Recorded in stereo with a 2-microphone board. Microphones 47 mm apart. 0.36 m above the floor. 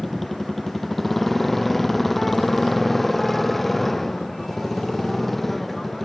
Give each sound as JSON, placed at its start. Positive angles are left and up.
{"t": 0.0, "sound": "a motorcycle", "side_deg": 5}